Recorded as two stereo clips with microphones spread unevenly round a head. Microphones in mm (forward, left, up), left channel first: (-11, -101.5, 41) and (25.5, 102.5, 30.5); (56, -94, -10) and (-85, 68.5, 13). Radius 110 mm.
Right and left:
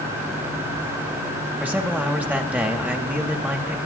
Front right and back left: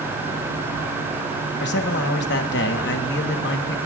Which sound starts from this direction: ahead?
A man speaking, at 1.6 s.